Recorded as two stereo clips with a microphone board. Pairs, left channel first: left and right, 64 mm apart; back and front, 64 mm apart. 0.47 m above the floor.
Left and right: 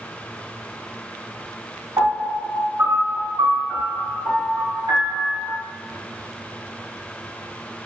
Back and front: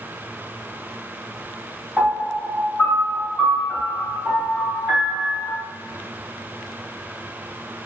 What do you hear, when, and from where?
2.0 s a piano: 90° right, 2 m